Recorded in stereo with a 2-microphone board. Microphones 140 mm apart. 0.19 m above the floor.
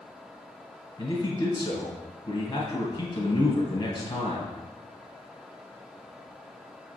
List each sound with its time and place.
1.0 s a man speaking: 30° left (ahead or behind), 1.4 m